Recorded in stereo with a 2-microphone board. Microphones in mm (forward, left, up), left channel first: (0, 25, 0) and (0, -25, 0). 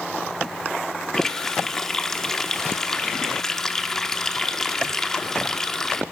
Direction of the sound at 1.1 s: 10° left (ahead or behind).